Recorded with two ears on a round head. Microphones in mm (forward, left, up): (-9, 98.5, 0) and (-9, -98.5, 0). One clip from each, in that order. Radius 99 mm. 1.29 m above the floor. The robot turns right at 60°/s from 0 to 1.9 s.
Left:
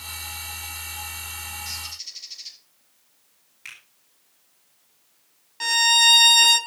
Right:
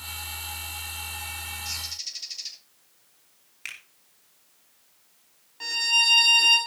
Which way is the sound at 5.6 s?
50° left (ahead or behind).